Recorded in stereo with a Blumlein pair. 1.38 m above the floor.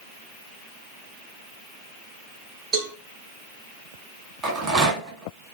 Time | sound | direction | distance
2.7 | a cowbell | 20° right | 1.3 m
4.4 | a rattle | 20° right | 1.4 m